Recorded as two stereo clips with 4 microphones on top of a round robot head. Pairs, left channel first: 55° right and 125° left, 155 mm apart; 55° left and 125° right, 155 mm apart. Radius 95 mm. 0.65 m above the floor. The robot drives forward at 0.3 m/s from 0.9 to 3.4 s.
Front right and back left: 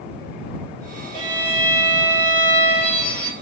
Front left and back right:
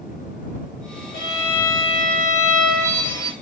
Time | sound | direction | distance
1.1 | a violin | 85° left | 1.8 m